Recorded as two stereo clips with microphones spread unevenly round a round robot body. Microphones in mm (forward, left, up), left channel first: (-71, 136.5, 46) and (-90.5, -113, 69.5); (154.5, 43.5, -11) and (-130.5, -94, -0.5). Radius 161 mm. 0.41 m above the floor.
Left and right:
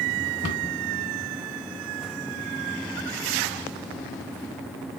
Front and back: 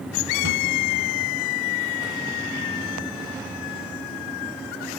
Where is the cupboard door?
85° left, 1.3 m.